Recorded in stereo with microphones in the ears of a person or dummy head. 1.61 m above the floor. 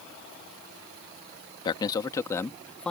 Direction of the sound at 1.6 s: 25° left (ahead or behind).